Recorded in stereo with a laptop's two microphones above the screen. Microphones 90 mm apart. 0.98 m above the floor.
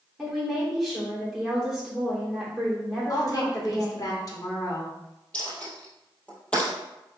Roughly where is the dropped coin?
Centre.